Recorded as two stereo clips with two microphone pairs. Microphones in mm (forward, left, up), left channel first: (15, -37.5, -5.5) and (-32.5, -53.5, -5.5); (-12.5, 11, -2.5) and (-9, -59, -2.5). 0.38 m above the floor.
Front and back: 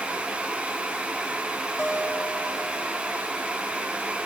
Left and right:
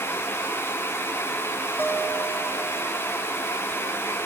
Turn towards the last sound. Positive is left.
turn(degrees=35)